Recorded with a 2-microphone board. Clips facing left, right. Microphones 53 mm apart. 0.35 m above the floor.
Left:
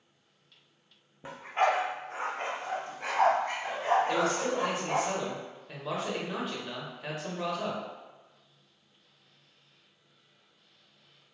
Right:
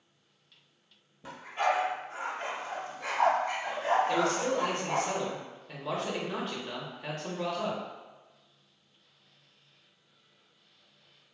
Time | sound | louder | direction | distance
1.2 | a dog barking | left 2 dB | 25° left (ahead or behind) | 0.6 m
4.1 | a man speaking | even | 5° left (ahead or behind) | 0.9 m